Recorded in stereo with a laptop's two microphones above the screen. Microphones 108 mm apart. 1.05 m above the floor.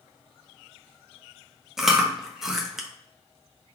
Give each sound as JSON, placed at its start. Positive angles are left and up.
{"t": 1.8, "sound": "chewing", "side_deg": -5, "distance_m": 0.7}